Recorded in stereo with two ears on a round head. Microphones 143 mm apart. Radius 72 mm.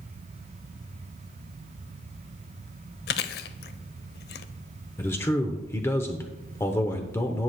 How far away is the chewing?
About 0.6 m.